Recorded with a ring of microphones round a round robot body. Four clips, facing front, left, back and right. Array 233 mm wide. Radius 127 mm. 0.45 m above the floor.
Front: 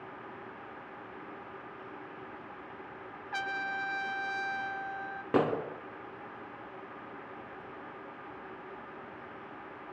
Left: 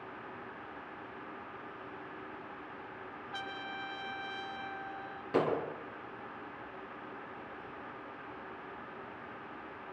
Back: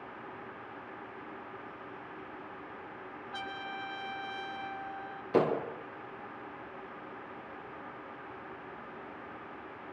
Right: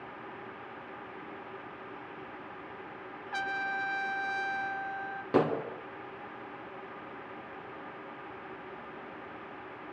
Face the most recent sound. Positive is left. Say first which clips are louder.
# right 3 dB, back 1 dB
turn(degrees=-30)